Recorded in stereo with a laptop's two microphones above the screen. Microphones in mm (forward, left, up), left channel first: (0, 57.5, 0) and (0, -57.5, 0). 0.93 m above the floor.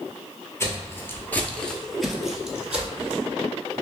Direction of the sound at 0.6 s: 25° left (ahead or behind).